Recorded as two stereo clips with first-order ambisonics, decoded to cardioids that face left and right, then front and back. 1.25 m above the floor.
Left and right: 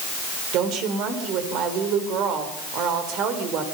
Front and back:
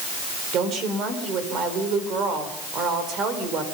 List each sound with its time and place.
0.5 s a woman speaking: 130° right, 4.5 m